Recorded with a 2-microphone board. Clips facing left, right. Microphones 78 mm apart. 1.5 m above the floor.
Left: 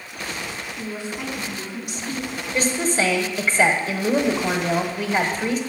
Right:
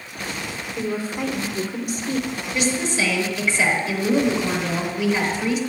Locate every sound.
0.8 s a woman speaking: 40° right (ahead or behind), 1.1 m
2.5 s a woman speaking: 40° left (ahead or behind), 1.0 m